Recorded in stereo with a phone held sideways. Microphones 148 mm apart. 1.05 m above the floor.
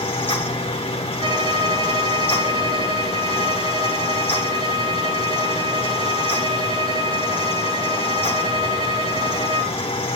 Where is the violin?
30° right (ahead or behind), 1.2 m.